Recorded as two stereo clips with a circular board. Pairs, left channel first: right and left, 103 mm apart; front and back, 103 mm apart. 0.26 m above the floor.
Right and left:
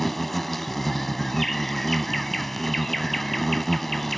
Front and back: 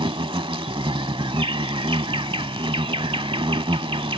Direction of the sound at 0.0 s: Straight behind.